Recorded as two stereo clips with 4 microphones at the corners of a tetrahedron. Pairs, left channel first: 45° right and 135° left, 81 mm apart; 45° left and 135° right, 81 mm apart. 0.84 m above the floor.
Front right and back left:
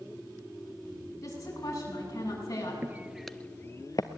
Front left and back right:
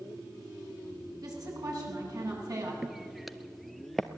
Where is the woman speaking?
95° right, 7 m.